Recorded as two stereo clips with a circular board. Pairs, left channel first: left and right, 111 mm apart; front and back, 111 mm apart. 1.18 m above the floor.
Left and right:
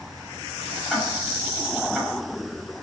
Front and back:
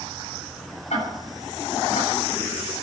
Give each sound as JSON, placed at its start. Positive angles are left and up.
{"t": 0.9, "sound": "ticking", "azimuth_deg": 0, "distance_m": 8.0}